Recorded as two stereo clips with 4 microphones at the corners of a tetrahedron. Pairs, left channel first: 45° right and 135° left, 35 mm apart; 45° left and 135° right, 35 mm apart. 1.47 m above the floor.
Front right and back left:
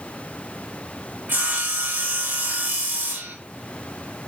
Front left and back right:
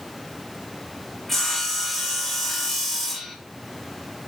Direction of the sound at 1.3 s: 130° left.